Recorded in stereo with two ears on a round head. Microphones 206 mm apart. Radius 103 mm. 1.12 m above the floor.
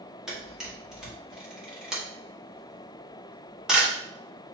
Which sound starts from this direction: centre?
A camera shutter, at 0.3 s.